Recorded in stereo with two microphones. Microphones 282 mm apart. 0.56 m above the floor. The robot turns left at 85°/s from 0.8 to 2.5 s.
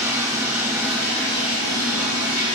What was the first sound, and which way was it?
Running water, 170° right.